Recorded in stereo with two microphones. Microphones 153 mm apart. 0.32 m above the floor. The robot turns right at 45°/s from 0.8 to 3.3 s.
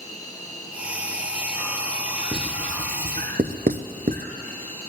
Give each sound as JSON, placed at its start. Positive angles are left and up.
{"t": 0.0, "sound": "an insect", "azimuth_deg": 155, "distance_m": 2.5}
{"t": 2.3, "sound": "writing", "side_deg": -40, "distance_m": 0.8}